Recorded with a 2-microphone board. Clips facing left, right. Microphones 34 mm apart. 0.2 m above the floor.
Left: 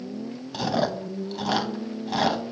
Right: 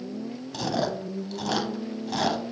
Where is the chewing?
15° left (ahead or behind), 0.8 m.